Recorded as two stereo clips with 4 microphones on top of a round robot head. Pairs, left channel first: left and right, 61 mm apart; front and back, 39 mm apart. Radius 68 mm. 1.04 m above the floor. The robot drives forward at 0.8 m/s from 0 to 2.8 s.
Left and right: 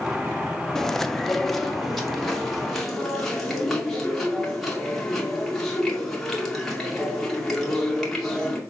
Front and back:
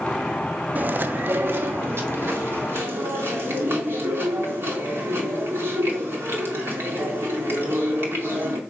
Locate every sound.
0.8 s chewing: 170° left, 0.5 m; by 8.6 s straight behind, 2 m